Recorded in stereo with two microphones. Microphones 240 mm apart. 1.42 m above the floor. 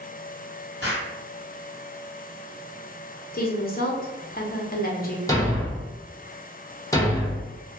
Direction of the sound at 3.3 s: 40° left (ahead or behind).